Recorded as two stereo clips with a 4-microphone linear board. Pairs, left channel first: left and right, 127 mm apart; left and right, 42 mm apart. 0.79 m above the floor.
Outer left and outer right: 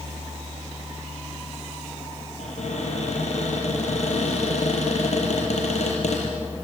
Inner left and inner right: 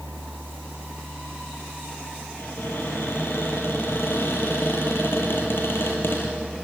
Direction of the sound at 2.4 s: 60° left (ahead or behind).